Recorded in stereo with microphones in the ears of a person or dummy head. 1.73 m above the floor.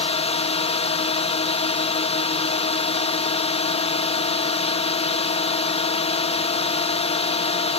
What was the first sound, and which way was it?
A drone, 40° left (ahead or behind).